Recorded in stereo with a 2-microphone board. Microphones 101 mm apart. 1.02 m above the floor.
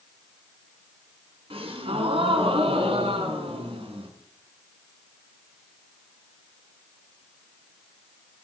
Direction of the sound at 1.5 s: 70° right (ahead or behind).